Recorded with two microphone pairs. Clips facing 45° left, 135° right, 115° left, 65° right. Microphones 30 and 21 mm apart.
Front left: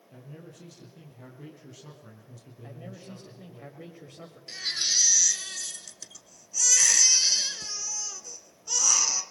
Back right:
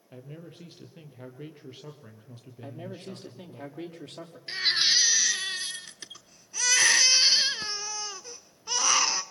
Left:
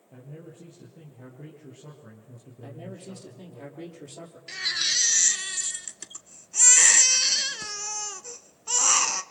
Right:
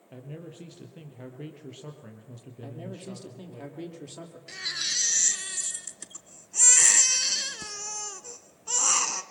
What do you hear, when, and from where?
0.1 s a man speaking: 80° right, 4.5 m
2.6 s a man speaking: 135° right, 5.5 m
4.5 s a baby crying: 175° right, 1.0 m